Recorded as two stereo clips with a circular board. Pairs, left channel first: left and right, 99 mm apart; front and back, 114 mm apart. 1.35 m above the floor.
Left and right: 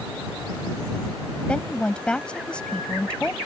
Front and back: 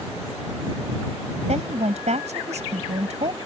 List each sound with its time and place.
1.5 s a woman speaking: 170° left